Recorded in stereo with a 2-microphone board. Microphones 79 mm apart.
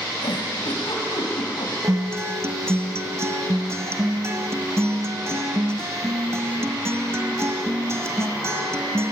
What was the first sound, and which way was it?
A giggle, 80° left.